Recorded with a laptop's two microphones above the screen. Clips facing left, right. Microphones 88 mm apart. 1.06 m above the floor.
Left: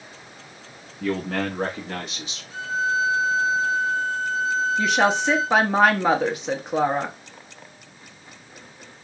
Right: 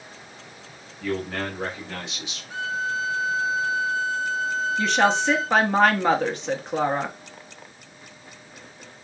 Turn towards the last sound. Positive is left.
turn(degrees=10)  # may be behind; listen again after turning